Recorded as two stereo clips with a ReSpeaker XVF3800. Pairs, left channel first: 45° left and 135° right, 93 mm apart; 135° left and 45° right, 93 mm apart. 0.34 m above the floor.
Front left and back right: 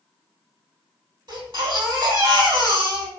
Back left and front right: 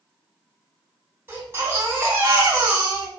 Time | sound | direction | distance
1.3 | a baby crying | 105° right | 2 m